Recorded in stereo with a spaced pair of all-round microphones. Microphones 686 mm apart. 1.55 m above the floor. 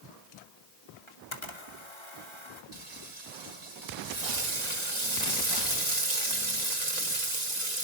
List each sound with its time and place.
1.1 s a camera shutter: 40° left (ahead or behind), 2.5 m
2.7 s frying: 70° right (ahead or behind), 3 m